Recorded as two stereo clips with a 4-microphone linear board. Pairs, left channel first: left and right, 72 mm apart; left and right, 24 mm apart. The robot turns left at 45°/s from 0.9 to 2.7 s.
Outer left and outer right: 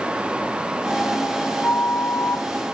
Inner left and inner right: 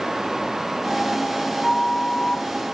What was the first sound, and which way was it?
A flute, 15° left (ahead or behind).